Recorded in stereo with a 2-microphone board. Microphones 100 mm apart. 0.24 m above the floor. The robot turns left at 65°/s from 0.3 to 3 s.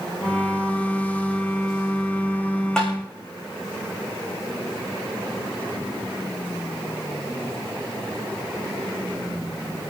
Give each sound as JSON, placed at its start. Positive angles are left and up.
{"t": 2.8, "sound": "tapping", "side_deg": 10, "distance_m": 3.5}